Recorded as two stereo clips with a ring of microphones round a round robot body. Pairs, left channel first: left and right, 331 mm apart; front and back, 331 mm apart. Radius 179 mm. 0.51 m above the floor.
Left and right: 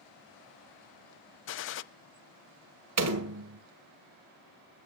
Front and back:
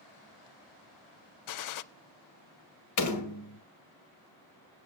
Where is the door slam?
45° right, 1.8 m.